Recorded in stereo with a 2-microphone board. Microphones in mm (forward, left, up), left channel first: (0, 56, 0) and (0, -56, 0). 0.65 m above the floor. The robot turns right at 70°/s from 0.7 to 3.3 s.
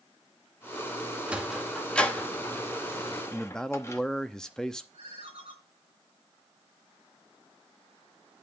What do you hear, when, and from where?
1.3 s a sliding door: 10° right (ahead or behind), 1.1 m; by 4.0 s 25° left (ahead or behind), 1.1 m
3.3 s a man speaking: 5° left (ahead or behind), 0.7 m
4.9 s a ringtone: 65° right (ahead or behind), 5 m